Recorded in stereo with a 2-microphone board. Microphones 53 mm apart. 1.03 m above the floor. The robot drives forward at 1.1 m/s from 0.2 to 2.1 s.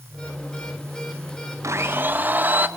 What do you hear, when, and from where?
1.6 s a blender: 60° right (ahead or behind), 0.6 m; by 2.7 s 35° right (ahead or behind), 0.9 m